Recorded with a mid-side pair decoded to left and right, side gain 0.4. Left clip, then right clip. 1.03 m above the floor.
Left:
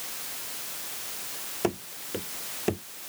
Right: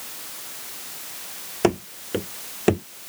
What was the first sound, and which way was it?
Running footsteps, 55° right.